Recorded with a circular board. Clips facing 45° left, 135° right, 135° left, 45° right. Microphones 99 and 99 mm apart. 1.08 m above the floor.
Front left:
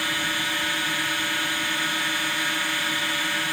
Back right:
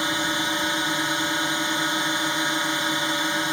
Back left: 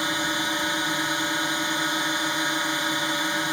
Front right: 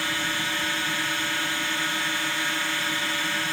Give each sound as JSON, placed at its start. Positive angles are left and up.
{"t": 0.0, "sound": "a drone", "azimuth_deg": 180}